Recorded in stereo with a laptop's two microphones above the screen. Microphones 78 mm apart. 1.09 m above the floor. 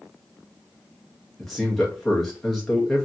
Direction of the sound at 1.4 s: 5° left (ahead or behind).